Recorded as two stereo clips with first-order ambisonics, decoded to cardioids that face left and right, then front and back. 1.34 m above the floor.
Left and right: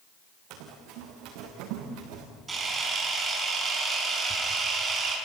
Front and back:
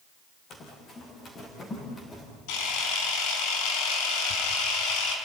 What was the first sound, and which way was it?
Running footsteps, 60° right.